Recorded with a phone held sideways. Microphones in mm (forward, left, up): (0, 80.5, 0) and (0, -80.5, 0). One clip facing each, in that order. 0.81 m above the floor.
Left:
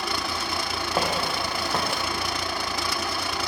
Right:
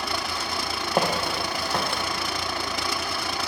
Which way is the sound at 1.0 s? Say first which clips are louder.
Right 2 dB; 20° right (ahead or behind).